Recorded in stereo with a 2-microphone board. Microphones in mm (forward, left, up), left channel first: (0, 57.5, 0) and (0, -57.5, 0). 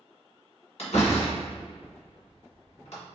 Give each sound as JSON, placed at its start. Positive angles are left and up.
{"t": 0.8, "sound": "a door slam", "side_deg": 65, "distance_m": 2.0}